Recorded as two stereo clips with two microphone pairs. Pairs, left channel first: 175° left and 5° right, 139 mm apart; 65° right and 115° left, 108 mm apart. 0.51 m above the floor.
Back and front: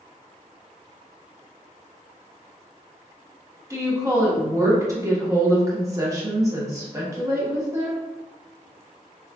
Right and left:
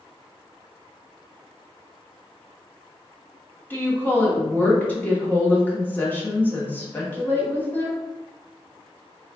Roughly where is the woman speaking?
Ahead.